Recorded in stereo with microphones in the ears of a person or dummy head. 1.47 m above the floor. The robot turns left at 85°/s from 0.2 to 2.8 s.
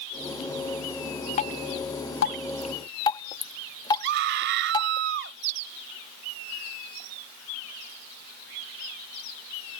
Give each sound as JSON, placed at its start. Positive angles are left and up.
{"t": 1.4, "sound": "dripping", "side_deg": 30}
{"t": 4.0, "sound": "a scream", "side_deg": -65}